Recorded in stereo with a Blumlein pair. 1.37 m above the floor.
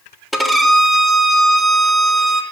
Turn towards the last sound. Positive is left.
turn(degrees=0)